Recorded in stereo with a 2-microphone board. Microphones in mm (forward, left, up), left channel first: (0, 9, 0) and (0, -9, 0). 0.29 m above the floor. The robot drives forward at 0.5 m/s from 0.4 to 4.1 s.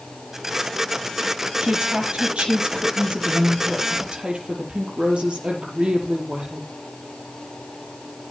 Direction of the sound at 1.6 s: 80° right.